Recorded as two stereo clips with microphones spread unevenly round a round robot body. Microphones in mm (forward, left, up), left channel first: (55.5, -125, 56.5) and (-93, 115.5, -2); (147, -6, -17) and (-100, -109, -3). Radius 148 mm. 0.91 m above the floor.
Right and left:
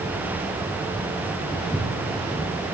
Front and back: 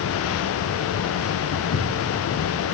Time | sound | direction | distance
1.5 | footsteps | 20° left | 1.1 m